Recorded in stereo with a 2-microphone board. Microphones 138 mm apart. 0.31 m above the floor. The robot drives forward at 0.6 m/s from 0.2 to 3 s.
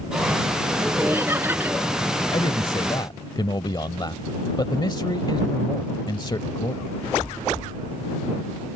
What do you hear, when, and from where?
0.8 s laughter: 15° right (ahead or behind)
2.3 s a man speaking: 35° left (ahead or behind)